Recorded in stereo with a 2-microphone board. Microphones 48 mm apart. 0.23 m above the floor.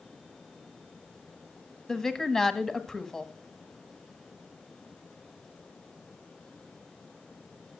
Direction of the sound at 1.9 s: 10° left (ahead or behind).